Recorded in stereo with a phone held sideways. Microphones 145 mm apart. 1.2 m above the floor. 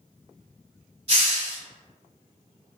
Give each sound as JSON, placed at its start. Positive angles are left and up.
{"t": 1.1, "sound": "a hiss", "side_deg": -45, "distance_m": 1.2}